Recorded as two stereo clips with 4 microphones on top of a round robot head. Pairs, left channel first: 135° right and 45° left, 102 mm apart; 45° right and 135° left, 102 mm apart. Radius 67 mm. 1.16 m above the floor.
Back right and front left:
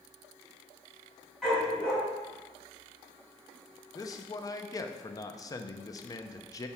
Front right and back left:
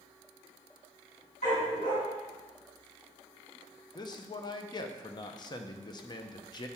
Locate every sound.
1.4 s a dog barking: 45° right, 3 m
4.0 s a man speaking: 85° right, 0.6 m